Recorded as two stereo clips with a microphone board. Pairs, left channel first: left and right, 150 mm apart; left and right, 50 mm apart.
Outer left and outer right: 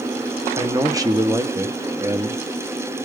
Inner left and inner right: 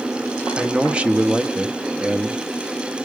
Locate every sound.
0.6 s a man speaking: 25° right (ahead or behind), 0.8 m